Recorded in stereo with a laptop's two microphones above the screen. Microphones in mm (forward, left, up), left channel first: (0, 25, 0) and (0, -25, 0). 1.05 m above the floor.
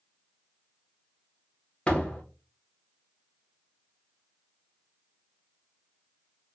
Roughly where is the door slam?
Left.